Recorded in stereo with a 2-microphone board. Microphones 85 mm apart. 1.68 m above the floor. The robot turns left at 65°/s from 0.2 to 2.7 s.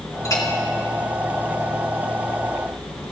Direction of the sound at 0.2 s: 40° left (ahead or behind).